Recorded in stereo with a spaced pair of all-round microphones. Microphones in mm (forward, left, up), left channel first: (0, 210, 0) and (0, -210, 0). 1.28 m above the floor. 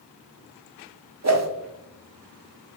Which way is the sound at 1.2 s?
40° right (ahead or behind).